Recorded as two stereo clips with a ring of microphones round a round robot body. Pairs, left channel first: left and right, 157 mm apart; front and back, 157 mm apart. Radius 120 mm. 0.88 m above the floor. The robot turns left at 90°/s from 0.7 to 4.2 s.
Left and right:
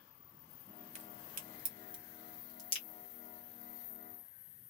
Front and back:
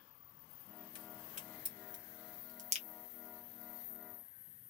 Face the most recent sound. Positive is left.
turn(degrees=10)